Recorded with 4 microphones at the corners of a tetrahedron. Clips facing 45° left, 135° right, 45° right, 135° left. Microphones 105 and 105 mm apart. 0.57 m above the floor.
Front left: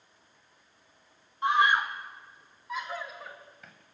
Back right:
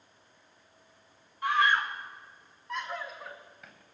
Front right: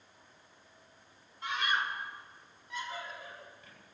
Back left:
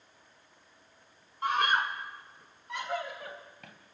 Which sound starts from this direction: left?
A scream, at 1.4 s.